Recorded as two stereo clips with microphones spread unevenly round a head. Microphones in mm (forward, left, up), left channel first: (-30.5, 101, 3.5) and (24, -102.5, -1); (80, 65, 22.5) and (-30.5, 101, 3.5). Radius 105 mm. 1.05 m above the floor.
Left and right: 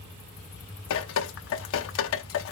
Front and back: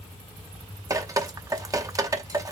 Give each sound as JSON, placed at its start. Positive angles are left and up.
{"t": 0.9, "sound": "dripping", "azimuth_deg": 100, "distance_m": 0.8}